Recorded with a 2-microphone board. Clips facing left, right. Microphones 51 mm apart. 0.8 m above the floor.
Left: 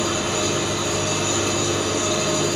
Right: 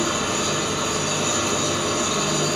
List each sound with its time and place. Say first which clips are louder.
0.0 s an engine running: left 1 dB; 35° right (ahead or behind), 1.4 m